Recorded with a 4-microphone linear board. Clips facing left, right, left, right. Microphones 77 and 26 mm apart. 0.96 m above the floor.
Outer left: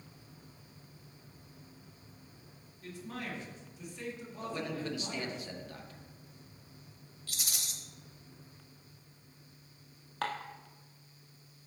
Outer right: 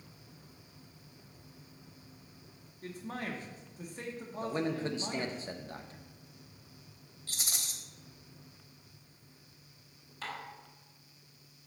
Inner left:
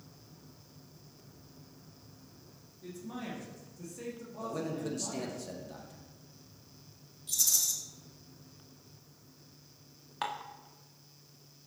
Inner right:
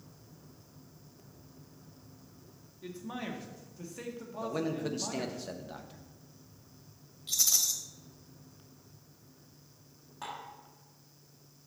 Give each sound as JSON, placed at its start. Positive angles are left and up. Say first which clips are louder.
{"t": 2.8, "sound": "a man speaking", "louder": "outer right 2 dB, inner right 2 dB", "side_deg": -45, "distance_m": 1.8}
{"t": 4.4, "sound": "a man speaking", "louder": "outer right 4 dB, inner right 3 dB", "side_deg": -35, "distance_m": 1.0}
{"t": 7.3, "sound": "a rattle", "louder": "even, inner right 2 dB", "side_deg": -35, "distance_m": 1.2}
{"t": 10.2, "sound": "dishes clattering", "louder": "outer left 5 dB, inner left 5 dB", "side_deg": 75, "distance_m": 1.1}